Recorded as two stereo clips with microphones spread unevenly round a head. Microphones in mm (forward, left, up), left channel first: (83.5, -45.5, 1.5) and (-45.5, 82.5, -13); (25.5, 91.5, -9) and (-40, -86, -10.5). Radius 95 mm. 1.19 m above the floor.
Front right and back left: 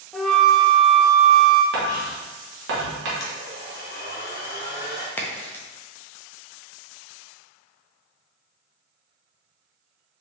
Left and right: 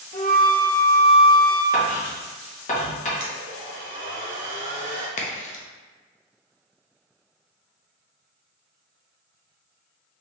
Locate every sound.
0.1 s a flute: 50° left, 0.5 m
1.7 s writing: 120° left, 1.2 m
3.2 s a blender: 70° right, 1.0 m
5.2 s a crack: 30° left, 0.6 m